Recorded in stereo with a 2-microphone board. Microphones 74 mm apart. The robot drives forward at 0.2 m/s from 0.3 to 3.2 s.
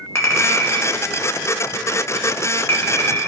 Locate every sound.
0.1 s a clink: 35° left (ahead or behind), 0.5 m; by 3.3 s 30° left (ahead or behind), 0.6 m